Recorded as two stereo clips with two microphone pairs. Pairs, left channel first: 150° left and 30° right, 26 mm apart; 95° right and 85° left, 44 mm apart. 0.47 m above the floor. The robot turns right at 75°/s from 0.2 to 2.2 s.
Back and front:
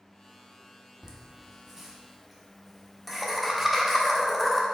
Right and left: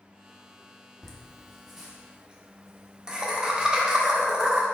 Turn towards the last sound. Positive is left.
turn(degrees=55)